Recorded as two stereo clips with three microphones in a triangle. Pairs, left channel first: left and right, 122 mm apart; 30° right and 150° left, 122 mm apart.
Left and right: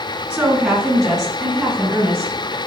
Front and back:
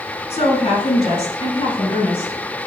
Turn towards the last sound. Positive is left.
turn(degrees=5)